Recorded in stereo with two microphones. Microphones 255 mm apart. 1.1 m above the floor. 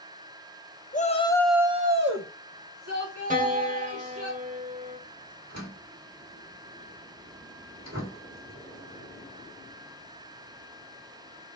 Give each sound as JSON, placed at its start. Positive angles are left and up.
{"t": 0.9, "sound": "a shout", "side_deg": 30, "distance_m": 1.3}
{"t": 3.3, "sound": "a piano", "side_deg": -30, "distance_m": 1.5}
{"t": 5.5, "sound": "a door slam", "side_deg": -80, "distance_m": 3.0}